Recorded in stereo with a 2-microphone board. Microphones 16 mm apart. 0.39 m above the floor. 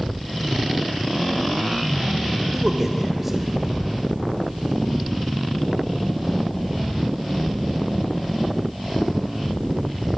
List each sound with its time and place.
2.5 s a man speaking: 15° right (ahead or behind), 1.3 m